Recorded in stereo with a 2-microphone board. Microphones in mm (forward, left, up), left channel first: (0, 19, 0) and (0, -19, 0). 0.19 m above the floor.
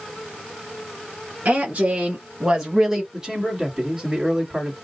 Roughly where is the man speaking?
Right.